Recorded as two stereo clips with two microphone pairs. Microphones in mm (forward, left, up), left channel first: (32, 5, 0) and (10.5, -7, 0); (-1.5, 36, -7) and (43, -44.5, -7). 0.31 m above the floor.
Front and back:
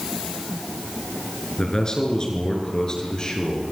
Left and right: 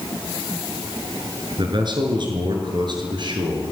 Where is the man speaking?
25° right, 5 m.